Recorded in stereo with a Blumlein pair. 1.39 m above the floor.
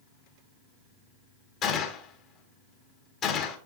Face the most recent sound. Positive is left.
turn(degrees=30)